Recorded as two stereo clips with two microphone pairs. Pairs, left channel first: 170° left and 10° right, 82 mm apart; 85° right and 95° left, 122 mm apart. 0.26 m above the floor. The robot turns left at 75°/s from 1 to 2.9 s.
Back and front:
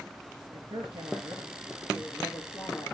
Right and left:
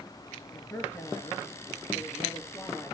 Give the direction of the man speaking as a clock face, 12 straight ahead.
12 o'clock.